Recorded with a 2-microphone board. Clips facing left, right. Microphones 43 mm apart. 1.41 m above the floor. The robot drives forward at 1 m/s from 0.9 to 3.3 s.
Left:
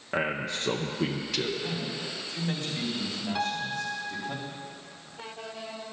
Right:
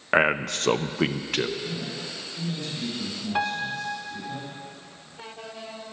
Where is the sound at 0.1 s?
70° right (ahead or behind), 0.6 m; by 1.5 s 35° right (ahead or behind), 0.9 m.